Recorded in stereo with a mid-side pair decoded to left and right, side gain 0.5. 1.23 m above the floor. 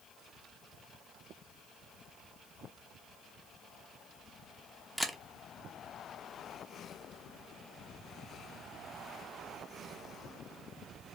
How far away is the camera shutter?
About 0.7 m.